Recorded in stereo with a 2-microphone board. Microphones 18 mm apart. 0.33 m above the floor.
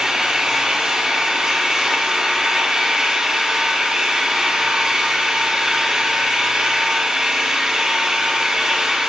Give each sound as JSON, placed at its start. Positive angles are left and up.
{"t": 0.0, "sound": "an engine running", "side_deg": -45, "distance_m": 6.5}